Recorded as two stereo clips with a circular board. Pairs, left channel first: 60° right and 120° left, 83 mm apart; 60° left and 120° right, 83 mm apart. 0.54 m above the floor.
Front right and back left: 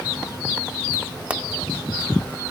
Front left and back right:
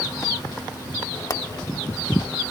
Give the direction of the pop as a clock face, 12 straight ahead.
10 o'clock.